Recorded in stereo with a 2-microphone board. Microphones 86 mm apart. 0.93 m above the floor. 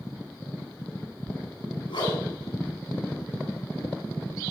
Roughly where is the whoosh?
Left.